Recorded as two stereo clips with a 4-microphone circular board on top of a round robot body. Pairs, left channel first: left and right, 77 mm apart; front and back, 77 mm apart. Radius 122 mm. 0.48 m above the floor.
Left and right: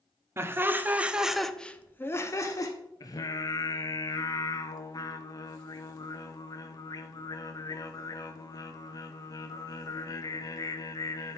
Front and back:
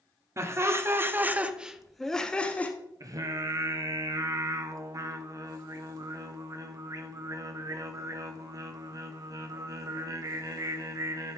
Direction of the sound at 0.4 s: 140° right.